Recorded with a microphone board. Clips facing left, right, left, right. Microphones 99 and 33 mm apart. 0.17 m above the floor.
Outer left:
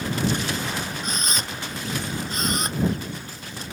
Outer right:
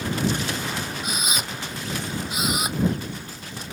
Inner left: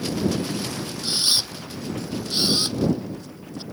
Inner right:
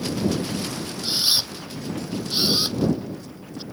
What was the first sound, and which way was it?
A camera shutter, 10° right (ahead or behind).